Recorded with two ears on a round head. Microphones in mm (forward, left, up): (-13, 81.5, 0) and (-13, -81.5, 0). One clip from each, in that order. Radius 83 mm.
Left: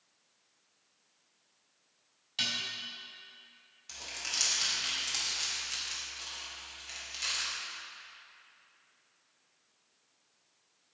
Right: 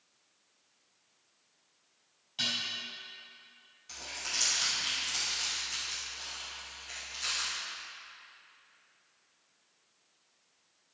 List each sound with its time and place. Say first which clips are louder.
2.4 s dishes clattering: even; 45° left (ahead or behind), 3.5 m
3.9 s crumpling: even; 25° left (ahead or behind), 3 m